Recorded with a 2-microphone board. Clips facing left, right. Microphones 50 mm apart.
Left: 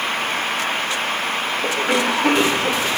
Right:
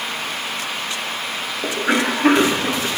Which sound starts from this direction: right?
A cough, at 1.6 s.